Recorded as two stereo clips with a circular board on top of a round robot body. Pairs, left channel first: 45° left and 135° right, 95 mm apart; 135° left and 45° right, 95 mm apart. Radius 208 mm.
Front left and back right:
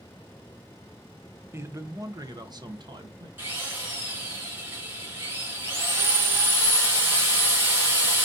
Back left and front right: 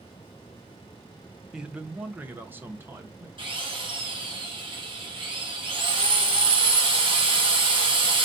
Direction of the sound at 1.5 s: 120° right.